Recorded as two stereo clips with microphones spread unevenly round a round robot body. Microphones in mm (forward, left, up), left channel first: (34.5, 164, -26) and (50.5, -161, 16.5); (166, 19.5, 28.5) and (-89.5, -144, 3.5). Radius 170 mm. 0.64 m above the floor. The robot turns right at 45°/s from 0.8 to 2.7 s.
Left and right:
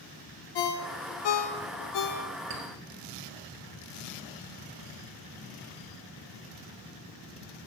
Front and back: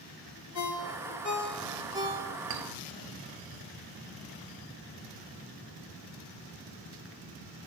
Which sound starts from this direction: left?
A ringtone, at 0.6 s.